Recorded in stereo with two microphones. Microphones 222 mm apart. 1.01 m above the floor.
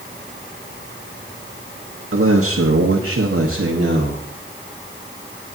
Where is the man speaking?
70° right (ahead or behind), 1.3 m; by 4.2 s 50° right (ahead or behind), 1.9 m.